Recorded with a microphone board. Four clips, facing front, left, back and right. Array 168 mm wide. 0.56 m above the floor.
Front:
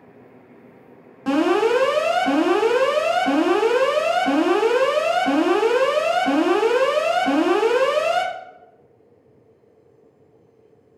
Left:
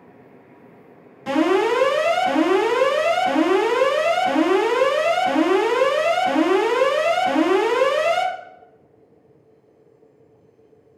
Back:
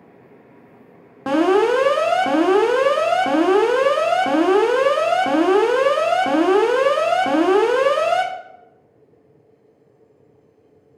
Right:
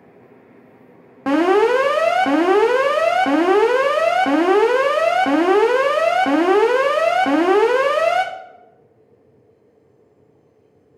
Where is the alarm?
115° right, 1.4 m.